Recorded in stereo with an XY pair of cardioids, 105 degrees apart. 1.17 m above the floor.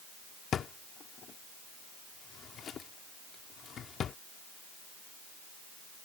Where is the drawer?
55° left.